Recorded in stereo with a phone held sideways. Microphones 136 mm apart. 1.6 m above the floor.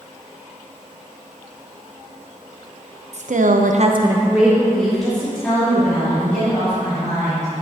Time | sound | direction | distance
3.1 | a woman speaking | 55° right (ahead or behind) | 0.8 m